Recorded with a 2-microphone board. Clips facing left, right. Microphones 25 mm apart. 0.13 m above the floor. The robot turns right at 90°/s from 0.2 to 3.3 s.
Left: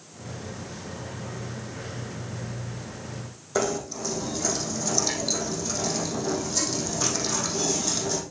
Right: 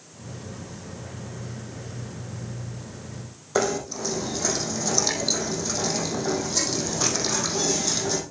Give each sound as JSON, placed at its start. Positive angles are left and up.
{"t": 3.5, "sound": "knocking", "side_deg": -20, "distance_m": 3.5}